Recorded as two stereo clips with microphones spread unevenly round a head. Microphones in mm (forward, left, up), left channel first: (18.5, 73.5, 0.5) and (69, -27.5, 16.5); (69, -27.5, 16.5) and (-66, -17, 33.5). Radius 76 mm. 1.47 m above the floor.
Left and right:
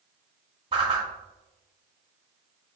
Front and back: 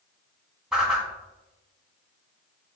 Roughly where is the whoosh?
Right.